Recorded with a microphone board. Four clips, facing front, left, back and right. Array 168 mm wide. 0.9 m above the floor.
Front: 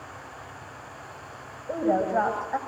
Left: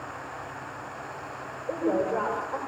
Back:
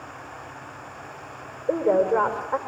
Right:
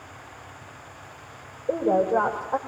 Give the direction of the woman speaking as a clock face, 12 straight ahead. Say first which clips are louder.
Right 5 dB, back 4 dB; 5 o'clock.